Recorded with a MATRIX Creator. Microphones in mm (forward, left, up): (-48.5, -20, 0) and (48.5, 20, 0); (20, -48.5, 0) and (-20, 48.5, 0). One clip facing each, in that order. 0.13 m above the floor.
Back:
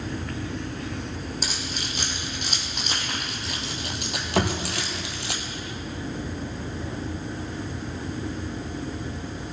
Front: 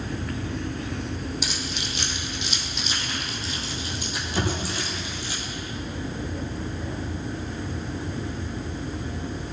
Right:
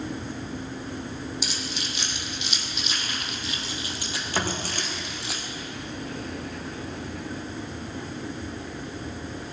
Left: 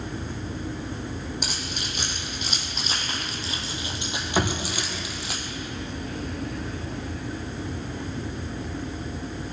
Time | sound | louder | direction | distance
1.4 | keys jangling | front 1 dB, even | 155° left | 4 m
4.4 | a thud | back 3 dB, left 4 dB | 165° right | 6 m